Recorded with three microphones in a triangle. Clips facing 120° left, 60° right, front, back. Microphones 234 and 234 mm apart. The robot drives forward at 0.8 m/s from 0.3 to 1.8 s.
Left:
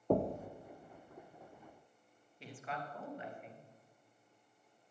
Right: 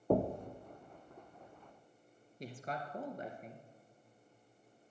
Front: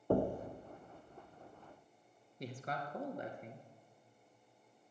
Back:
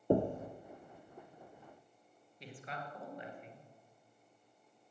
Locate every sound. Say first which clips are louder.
0.1 s knocking: right 1 dB, back 2 dB; 150° right, 0.8 m; by 0.5 s 160° right, 0.8 m
2.4 s a man speaking: right 2 dB, front 4 dB; 25° right, 2 m